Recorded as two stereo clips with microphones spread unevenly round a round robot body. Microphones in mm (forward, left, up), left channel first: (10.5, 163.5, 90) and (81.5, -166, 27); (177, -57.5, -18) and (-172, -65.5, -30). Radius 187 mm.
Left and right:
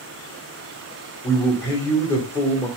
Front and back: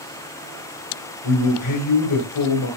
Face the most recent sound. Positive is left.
turn(degrees=10)